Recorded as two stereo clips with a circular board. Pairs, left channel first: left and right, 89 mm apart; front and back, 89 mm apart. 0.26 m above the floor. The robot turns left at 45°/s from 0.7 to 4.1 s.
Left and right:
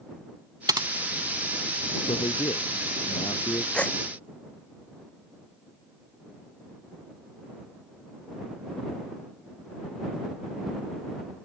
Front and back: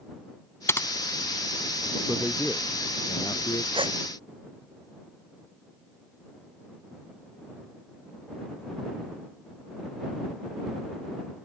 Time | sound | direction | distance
0.7 | typing on a keyboard | 55° right | ?
2.0 | a man speaking | 110° left | ?
3.7 | a gasp | 170° left | ?